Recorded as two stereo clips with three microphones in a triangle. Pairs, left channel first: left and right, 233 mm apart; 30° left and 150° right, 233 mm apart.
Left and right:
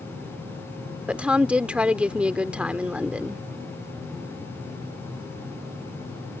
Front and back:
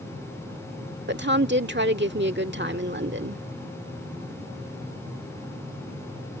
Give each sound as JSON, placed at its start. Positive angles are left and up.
{"t": 1.1, "sound": "a woman speaking", "azimuth_deg": -175}